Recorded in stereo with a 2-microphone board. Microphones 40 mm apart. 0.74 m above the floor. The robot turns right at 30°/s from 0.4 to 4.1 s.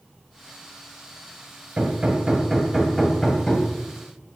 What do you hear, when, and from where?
1.8 s hammering: 30° right, 1.7 m; by 3.7 s 25° left, 1.7 m